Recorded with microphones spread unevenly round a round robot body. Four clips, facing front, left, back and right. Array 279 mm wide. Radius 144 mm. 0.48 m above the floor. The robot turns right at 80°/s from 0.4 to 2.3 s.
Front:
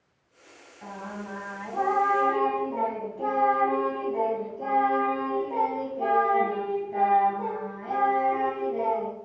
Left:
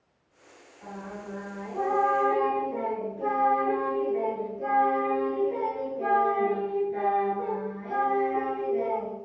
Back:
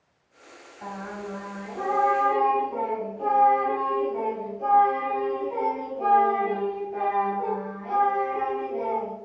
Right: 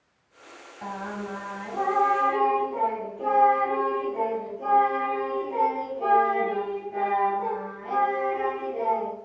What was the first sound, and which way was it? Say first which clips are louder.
Singing: right 6 dB, back 2 dB; 100° right.